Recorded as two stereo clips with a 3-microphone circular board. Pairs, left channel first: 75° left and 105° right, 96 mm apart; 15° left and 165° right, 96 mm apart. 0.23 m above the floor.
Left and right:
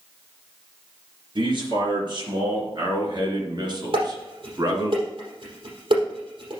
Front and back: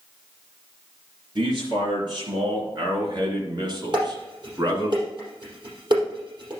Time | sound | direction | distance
1.4 | a man speaking | 135° right | 3.5 m
3.9 | dishes clattering | 130° right | 4.5 m